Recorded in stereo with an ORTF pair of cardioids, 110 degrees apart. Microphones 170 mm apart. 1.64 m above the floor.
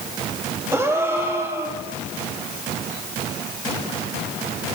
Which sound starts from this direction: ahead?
A gasp, at 0.7 s.